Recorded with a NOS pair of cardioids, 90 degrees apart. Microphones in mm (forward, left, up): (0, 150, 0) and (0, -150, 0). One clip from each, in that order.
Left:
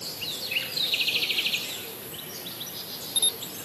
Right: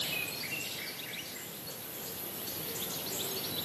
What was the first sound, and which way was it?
Only background noise.